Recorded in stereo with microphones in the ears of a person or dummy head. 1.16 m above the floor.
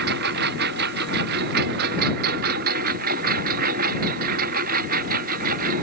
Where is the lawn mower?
50° right (ahead or behind); by 5.8 s 40° right (ahead or behind).